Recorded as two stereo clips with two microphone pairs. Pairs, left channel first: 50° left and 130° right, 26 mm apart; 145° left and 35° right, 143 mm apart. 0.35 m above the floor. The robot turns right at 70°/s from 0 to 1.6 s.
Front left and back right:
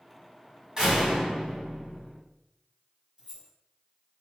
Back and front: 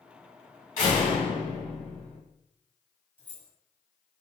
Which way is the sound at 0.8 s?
170° left.